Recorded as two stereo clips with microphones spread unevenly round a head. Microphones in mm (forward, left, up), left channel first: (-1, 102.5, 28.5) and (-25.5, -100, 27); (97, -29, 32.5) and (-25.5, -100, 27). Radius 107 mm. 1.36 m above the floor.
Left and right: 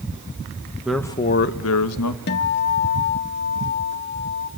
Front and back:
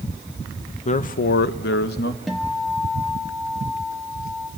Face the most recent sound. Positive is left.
turn(degrees=115)